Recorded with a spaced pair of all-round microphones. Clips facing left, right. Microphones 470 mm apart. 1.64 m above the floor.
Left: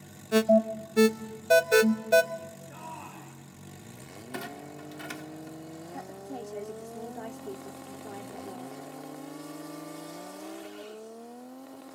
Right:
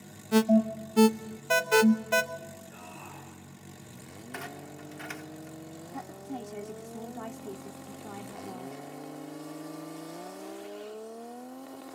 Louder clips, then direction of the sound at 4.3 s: Left 4 dB; 55° left (ahead or behind).